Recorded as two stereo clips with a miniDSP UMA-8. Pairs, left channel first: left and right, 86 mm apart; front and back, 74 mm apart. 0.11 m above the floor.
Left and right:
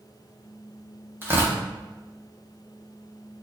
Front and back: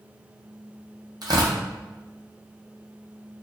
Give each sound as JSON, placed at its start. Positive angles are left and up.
{"t": 1.2, "sound": "tearing paper", "azimuth_deg": -155, "distance_m": 0.8}